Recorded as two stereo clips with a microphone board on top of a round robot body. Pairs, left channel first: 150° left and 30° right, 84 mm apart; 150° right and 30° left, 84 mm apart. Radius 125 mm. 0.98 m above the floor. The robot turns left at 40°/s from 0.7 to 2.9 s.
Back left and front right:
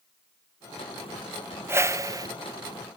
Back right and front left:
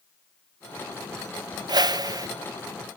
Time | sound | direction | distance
1.7 | a whoosh | 25° left | 0.8 m